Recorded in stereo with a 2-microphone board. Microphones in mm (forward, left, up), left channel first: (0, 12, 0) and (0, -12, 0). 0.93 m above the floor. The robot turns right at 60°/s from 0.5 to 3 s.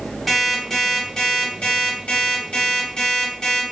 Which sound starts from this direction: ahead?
An alarm clock, at 0.3 s.